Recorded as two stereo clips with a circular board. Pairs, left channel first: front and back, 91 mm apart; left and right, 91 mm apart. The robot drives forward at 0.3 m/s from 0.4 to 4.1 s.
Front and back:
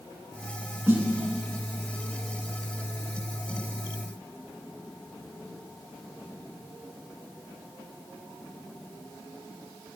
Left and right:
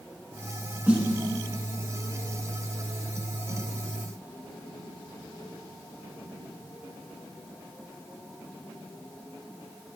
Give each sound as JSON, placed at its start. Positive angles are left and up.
{"t": 0.9, "sound": "a snare drum", "azimuth_deg": -150, "distance_m": 1.4}